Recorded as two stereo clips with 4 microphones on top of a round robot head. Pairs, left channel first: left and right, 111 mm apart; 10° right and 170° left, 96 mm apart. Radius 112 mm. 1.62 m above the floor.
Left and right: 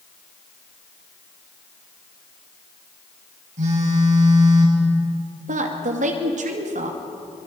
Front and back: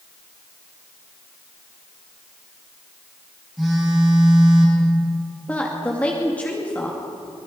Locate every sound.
3.6 s a phone buzzing: 100° right, 6.5 m
5.5 s a woman speaking: 90° right, 2.5 m